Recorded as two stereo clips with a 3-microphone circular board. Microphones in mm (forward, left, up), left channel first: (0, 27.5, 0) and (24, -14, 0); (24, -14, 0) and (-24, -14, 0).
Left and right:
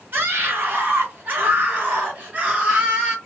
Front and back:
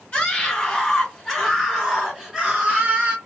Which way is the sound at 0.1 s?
55° right.